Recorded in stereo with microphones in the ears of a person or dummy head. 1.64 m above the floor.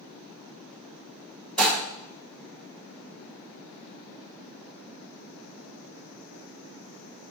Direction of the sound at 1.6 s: 5° left (ahead or behind).